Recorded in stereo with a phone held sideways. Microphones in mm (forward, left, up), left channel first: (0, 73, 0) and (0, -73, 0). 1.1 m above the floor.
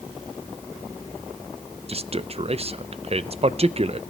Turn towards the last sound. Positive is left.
turn(degrees=-45)  # may be behind; listen again after turning